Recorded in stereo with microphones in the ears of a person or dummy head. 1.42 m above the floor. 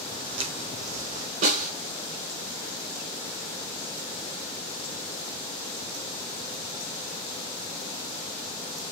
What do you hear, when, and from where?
0.1 s footsteps: 35° right (ahead or behind), 4 m; by 1.3 s 55° right (ahead or behind), 4 m
1.4 s a snare drum: 50° right (ahead or behind), 5.5 m